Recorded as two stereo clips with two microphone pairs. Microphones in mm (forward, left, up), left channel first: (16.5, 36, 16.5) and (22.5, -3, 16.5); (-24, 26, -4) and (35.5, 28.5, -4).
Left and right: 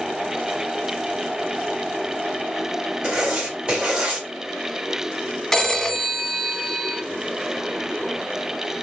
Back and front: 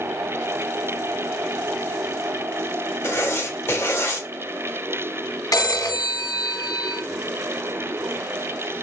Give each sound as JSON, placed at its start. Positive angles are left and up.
{"t": 3.0, "sound": "writing", "azimuth_deg": -140, "distance_m": 1.6}
{"t": 5.5, "sound": "a phone ringing", "azimuth_deg": 175, "distance_m": 0.9}